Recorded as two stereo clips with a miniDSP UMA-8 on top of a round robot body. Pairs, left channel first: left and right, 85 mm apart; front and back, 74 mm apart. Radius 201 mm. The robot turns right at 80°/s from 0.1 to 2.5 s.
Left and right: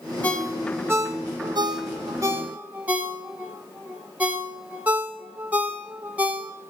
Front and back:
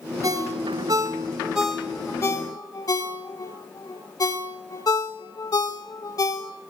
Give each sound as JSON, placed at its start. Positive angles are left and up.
{"t": 0.2, "sound": "a ringtone", "azimuth_deg": 155, "distance_m": 1.4}